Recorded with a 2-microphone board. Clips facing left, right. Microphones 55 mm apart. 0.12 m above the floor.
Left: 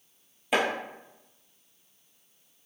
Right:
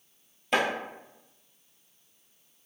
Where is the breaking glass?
I don't hear breaking glass.